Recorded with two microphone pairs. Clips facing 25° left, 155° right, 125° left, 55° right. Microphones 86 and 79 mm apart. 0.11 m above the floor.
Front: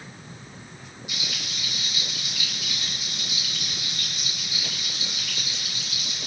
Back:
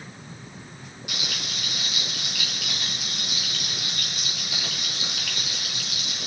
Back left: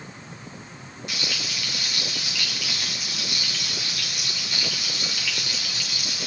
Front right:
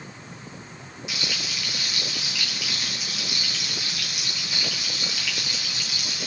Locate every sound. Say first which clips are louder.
1.1 s frying: back 2 dB, even; 145° right, 8.5 m